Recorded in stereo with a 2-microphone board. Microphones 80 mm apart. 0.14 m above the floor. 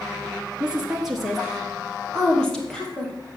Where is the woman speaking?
10° right (ahead or behind), 2.5 m; by 3.1 s 15° left (ahead or behind), 3.5 m.